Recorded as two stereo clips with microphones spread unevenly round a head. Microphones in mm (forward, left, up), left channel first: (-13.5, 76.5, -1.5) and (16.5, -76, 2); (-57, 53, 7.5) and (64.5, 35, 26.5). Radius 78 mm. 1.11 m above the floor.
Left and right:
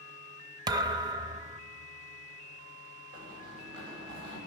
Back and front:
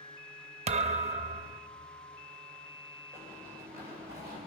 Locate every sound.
0.7 s a thud: 20° right, 0.6 m
3.1 s running footsteps: 85° right, 8 m